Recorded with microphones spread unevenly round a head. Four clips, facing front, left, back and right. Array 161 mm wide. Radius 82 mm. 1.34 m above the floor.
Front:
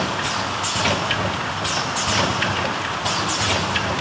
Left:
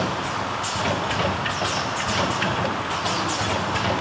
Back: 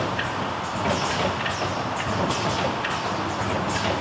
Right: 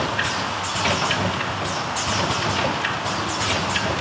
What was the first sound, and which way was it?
Only background noise.